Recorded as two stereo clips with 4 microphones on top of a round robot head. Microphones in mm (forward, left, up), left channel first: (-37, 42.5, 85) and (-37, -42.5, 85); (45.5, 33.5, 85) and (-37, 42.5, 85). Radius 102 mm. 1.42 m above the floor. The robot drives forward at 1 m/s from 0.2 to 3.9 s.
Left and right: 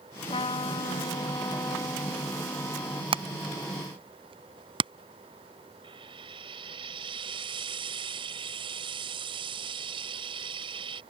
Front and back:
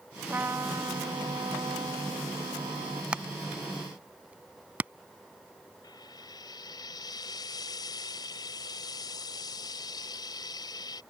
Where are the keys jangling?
No keys jangling in this recording.